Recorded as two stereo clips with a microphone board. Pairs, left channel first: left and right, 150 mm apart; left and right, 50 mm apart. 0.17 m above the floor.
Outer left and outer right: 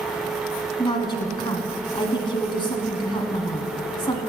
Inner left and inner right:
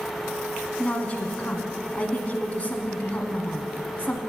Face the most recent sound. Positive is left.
turn(degrees=35)  # may be behind; listen again after turning